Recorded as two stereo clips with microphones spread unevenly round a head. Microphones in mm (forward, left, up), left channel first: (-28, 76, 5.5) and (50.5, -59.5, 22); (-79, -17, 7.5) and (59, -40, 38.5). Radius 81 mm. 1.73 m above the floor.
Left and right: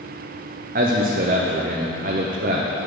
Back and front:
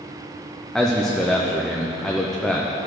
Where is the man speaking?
100° right, 0.8 m.